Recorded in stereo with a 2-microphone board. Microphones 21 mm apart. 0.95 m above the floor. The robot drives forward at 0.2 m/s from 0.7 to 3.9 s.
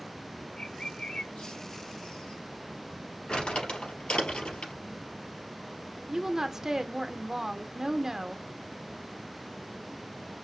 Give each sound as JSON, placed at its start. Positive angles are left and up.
{"t": 0.6, "sound": "a bird", "side_deg": 80, "distance_m": 3.5}
{"t": 3.3, "sound": "crumpling", "side_deg": 75, "distance_m": 3.5}
{"t": 6.1, "sound": "a woman speaking", "side_deg": -30, "distance_m": 0.5}